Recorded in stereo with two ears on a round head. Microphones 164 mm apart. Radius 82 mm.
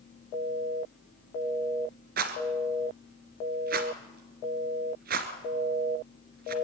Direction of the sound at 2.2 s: 55° right (ahead or behind).